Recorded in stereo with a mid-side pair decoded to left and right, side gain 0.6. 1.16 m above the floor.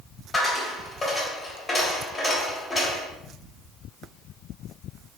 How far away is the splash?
I don't hear a splash.